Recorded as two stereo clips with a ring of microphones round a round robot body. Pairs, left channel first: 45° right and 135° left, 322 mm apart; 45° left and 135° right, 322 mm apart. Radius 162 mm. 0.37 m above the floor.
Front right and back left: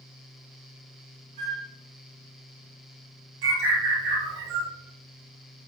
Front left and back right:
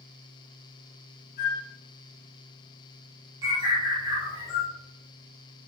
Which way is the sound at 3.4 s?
145° left.